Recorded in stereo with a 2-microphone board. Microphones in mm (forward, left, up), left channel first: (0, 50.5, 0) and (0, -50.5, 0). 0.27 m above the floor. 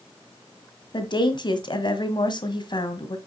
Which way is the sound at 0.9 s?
50° left (ahead or behind).